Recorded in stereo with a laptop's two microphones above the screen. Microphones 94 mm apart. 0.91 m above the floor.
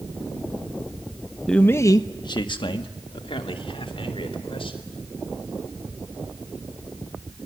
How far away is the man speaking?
About 0.8 m.